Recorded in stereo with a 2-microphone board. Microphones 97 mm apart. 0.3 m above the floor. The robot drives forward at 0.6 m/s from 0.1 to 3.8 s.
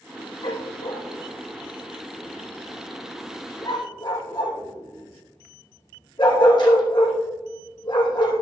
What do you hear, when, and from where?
0.4 s a dog barking: 85° left, 2.5 m; by 8.4 s 55° left (ahead or behind), 3.5 m